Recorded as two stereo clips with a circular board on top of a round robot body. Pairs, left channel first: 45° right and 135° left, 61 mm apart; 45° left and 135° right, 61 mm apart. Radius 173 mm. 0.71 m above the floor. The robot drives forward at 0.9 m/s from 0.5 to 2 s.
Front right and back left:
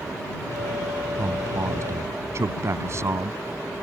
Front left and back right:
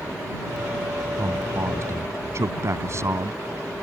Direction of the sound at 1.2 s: Straight behind.